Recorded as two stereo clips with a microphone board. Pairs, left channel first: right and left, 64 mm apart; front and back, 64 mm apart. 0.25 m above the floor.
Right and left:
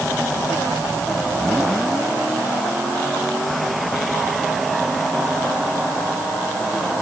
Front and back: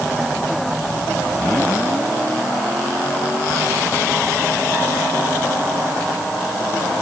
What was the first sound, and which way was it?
Only background noise.